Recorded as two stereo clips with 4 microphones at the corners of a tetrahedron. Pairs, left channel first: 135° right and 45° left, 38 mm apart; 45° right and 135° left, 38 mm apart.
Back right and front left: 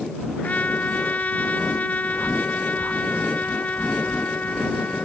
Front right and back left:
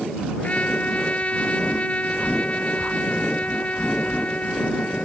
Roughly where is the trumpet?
Right.